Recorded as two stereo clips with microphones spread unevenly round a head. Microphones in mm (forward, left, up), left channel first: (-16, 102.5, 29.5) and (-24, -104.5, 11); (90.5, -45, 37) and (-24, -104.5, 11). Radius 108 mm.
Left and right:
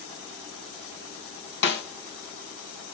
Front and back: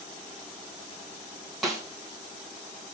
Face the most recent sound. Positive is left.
turn(degrees=125)